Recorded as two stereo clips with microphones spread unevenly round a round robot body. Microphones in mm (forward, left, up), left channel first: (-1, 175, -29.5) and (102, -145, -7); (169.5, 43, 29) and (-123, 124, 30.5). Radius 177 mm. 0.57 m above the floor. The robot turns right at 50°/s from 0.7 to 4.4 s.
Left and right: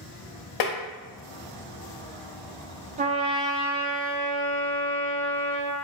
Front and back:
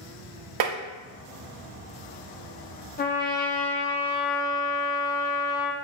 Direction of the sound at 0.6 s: 140° left.